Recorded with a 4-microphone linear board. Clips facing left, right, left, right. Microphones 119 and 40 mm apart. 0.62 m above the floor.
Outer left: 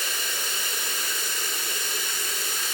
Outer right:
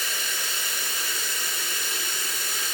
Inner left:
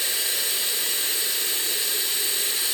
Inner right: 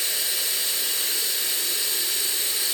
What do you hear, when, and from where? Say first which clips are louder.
0.0 s running water: even, inner left 1 dB; 45° left (ahead or behind), 1.5 m